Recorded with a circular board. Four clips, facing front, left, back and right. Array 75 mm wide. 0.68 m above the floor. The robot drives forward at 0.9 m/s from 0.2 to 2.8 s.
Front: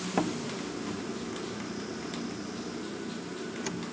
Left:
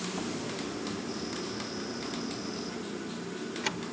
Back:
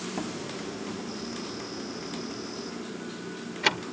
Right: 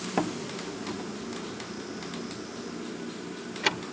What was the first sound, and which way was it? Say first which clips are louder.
A door slam: right 9 dB, front 7 dB; 60° right.